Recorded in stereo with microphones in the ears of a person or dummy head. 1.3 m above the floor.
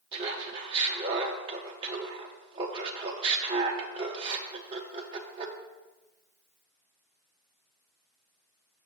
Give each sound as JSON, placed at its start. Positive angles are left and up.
{"t": 0.1, "sound": "laughter", "side_deg": -25, "distance_m": 0.5}